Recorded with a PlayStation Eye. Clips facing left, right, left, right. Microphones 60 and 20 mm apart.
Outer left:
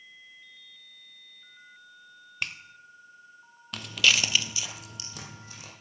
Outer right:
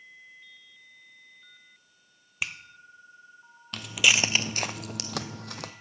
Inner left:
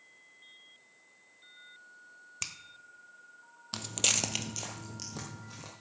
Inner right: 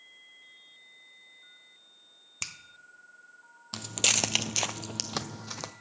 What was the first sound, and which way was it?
A finger snap, 5° right (ahead or behind).